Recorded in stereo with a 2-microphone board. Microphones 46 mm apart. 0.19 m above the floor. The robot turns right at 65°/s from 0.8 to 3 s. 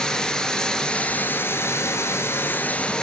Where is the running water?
15° left, 1.8 m; by 3.0 s 160° left, 1.8 m.